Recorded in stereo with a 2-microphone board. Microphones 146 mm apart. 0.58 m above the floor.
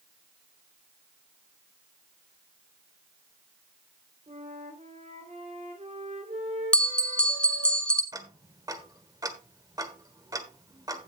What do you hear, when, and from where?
4.3 s a flute: 55° right (ahead or behind), 2.5 m
6.7 s a bell: 10° left (ahead or behind), 1.3 m
8.1 s ticking: 25° right (ahead or behind), 1.3 m